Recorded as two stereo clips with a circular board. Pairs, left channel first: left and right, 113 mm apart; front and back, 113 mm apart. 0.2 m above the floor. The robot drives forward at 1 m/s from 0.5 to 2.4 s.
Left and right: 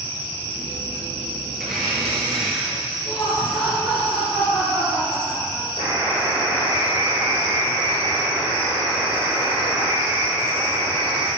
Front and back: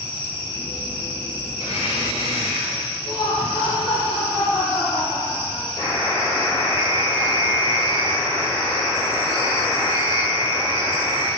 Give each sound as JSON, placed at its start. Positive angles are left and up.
{"t": 1.6, "sound": "a blender", "azimuth_deg": 0, "distance_m": 3.5}
{"t": 3.0, "sound": "laughter", "azimuth_deg": -5, "distance_m": 3.5}
{"t": 5.8, "sound": "a buzzer", "azimuth_deg": 55, "distance_m": 3.5}